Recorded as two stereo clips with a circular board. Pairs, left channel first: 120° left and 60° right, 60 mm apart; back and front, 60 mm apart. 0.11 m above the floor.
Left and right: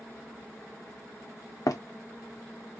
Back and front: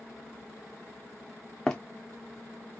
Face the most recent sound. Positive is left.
turn(degrees=100)